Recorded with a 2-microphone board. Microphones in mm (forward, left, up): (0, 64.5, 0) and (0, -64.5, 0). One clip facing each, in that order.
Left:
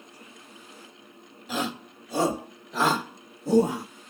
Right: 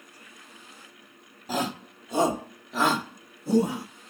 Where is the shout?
40° right (ahead or behind), 1.3 m; by 3.9 s 35° left (ahead or behind), 1.2 m.